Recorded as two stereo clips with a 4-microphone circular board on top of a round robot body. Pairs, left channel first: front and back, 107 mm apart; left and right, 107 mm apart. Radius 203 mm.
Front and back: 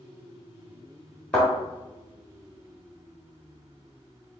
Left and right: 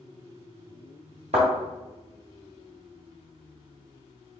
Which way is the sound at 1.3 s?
70° right.